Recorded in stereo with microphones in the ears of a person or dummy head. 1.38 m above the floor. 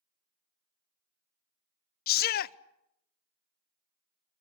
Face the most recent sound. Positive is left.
turn(degrees=45)  # may be behind; listen again after turning